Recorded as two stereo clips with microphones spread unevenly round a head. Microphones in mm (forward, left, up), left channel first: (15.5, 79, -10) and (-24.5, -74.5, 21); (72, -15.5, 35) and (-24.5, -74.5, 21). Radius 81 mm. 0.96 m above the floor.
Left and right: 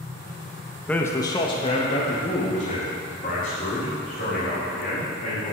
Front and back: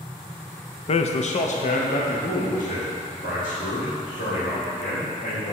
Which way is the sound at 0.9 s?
Straight ahead.